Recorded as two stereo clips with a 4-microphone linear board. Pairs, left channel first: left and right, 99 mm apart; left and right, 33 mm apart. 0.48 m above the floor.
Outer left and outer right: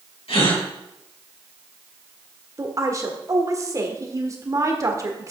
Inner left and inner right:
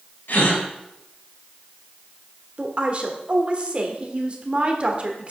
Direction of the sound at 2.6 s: 35° right (ahead or behind).